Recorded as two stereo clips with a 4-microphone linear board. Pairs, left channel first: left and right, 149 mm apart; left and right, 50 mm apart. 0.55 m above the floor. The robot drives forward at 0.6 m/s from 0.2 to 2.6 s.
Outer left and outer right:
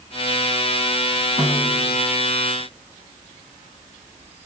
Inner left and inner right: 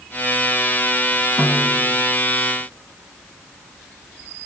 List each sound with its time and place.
1.4 s a snare drum: 10° right (ahead or behind), 3.5 m